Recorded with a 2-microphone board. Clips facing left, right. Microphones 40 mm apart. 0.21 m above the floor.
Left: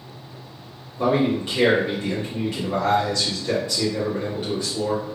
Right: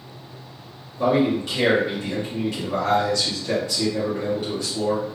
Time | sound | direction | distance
1.0 | a man speaking | 25° left (ahead or behind) | 1.5 m